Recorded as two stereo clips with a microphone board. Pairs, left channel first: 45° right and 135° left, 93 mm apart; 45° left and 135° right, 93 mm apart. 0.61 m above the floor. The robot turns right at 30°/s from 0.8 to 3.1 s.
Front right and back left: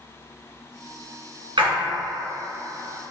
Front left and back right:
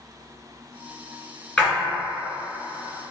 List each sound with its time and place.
1.6 s a splash: 120° left, 1.8 m; by 1.7 s 125° left, 1.8 m